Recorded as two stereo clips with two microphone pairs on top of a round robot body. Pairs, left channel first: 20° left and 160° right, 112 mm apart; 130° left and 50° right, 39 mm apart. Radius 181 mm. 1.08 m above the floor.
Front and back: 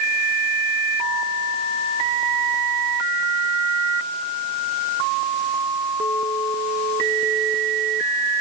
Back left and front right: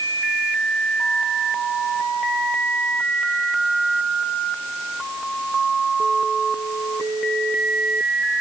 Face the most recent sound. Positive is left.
No sound to turn to.